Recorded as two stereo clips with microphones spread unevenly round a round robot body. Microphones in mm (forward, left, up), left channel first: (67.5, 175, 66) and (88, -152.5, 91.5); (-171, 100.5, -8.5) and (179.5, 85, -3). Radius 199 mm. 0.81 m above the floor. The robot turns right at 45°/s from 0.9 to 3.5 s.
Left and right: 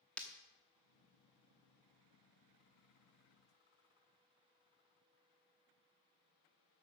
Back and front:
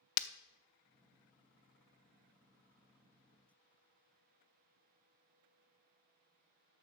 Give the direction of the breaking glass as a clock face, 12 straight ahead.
6 o'clock.